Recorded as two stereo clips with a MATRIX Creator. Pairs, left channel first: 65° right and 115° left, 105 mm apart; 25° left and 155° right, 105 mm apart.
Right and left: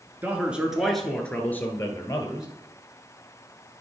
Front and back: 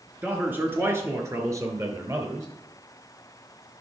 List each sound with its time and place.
0.2 s a man speaking: 150° left, 1.1 m; by 2.5 s 115° right, 1.7 m